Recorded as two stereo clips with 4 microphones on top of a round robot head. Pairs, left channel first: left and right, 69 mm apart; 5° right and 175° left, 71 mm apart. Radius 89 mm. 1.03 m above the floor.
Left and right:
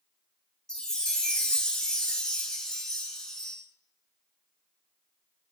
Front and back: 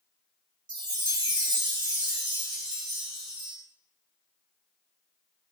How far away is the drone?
No drone in this recording.